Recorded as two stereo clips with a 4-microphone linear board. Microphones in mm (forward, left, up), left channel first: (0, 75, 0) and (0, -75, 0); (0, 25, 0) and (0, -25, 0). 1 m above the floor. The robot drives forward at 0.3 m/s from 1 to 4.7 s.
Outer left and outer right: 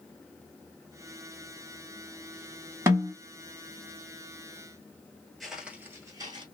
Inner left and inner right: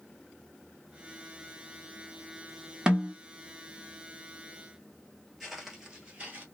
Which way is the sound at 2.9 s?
20° right (ahead or behind).